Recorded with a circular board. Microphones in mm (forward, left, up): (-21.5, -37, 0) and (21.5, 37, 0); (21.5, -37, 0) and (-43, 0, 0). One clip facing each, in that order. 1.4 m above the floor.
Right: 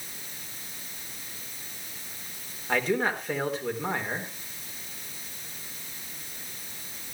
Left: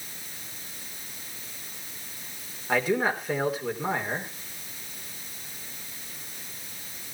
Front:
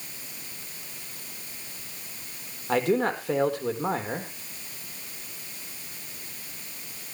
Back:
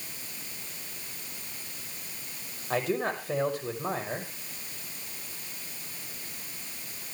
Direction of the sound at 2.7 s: 25° right.